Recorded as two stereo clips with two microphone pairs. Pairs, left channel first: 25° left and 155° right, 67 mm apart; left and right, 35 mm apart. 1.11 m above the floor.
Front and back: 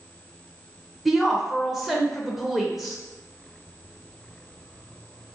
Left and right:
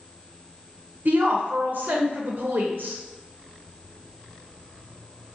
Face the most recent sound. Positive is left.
turn(degrees=-65)